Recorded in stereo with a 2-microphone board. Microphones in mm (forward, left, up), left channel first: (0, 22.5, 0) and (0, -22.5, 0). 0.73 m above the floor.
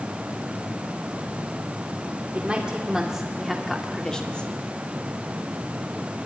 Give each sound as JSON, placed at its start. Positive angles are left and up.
{"t": 2.3, "sound": "a woman speaking", "side_deg": -25, "distance_m": 2.5}